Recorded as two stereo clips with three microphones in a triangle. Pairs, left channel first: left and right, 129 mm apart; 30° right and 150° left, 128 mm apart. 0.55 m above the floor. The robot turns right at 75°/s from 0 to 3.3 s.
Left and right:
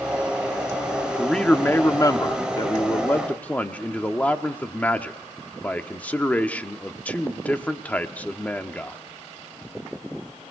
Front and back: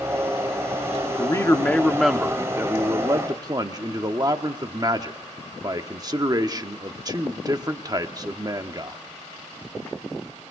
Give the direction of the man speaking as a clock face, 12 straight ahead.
12 o'clock.